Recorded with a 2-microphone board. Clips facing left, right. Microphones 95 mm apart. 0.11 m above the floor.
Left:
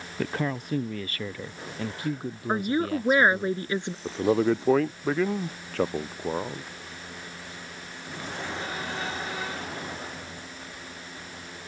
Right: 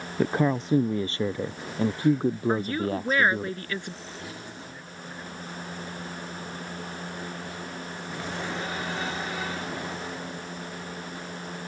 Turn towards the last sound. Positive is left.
turn(degrees=80)